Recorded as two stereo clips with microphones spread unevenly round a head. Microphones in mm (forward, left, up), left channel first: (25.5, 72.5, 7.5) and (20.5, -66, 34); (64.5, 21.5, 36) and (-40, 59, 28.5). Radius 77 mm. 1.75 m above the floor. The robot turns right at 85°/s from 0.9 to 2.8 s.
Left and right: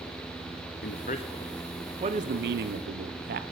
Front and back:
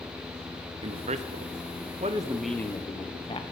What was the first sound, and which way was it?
A man speaking, 120° left.